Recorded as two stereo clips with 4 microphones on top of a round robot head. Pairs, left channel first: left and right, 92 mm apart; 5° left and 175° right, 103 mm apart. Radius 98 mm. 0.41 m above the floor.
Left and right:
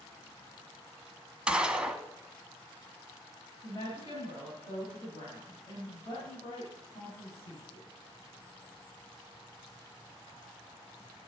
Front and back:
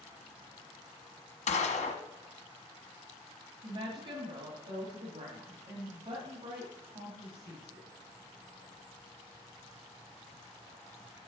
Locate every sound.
1.5 s a gunshot: 10° right, 1.0 m
3.6 s a woman speaking: 145° left, 2.5 m